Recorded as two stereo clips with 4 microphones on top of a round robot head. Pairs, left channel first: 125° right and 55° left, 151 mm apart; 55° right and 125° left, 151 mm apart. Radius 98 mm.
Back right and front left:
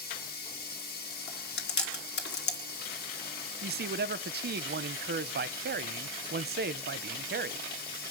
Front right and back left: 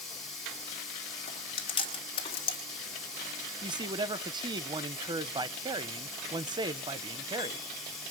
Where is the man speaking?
60° left, 0.8 m.